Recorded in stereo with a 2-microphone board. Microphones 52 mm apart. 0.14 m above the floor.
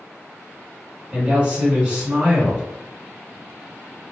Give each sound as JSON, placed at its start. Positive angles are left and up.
{"t": 1.1, "sound": "a woman speaking", "side_deg": -25, "distance_m": 1.8}